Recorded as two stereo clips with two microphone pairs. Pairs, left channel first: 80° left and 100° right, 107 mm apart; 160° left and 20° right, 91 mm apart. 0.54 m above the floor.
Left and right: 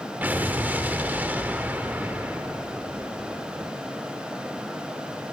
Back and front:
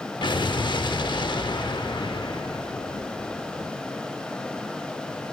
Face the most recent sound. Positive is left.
turn(degrees=-175)